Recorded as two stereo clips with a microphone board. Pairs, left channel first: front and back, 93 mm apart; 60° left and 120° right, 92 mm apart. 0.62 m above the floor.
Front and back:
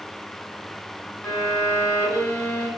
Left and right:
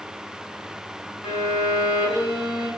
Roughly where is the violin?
Left.